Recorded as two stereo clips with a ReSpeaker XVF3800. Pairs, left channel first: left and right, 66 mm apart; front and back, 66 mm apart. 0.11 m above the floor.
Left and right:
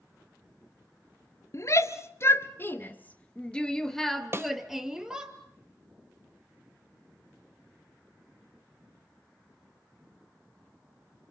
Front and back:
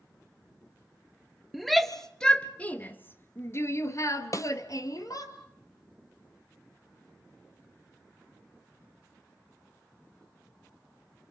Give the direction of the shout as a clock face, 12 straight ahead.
9 o'clock.